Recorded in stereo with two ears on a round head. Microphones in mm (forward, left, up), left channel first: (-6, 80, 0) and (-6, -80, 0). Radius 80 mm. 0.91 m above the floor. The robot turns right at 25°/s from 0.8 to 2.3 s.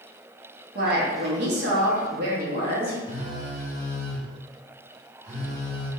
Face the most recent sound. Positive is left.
turn(degrees=-40)  # may be behind; listen again after turning